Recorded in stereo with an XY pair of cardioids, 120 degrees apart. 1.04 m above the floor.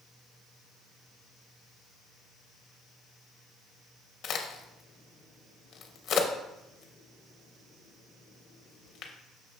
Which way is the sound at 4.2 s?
65° left.